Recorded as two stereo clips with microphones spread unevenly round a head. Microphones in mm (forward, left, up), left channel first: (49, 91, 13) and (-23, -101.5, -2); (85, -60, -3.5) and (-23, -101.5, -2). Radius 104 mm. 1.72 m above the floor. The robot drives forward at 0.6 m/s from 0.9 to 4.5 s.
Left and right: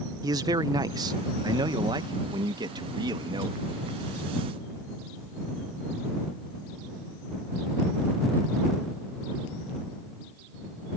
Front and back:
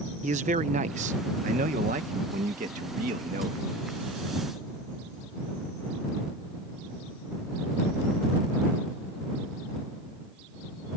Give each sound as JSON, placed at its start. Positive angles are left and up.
{"t": 0.2, "sound": "a man speaking", "azimuth_deg": 175}